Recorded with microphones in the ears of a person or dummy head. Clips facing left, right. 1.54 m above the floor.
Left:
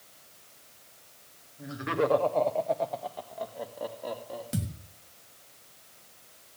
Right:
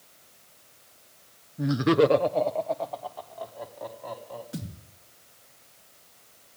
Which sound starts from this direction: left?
A thud, at 4.5 s.